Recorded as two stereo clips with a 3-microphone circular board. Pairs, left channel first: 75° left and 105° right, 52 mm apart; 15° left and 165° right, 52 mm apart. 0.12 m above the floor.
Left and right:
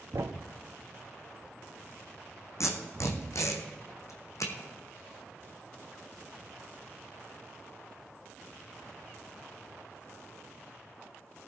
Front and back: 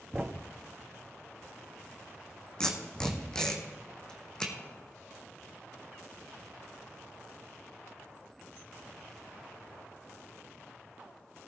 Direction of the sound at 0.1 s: 100° right.